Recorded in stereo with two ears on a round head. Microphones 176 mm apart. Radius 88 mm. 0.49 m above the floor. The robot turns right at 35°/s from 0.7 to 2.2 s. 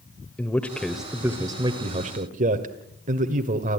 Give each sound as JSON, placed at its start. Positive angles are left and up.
{"t": 0.4, "sound": "a man speaking", "azimuth_deg": 175, "distance_m": 1.5}